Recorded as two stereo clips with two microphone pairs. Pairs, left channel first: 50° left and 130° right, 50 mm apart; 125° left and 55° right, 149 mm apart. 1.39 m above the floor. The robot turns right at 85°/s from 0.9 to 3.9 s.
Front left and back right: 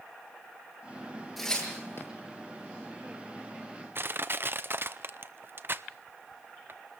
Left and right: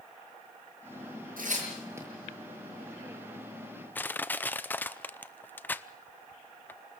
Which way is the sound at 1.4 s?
35° right.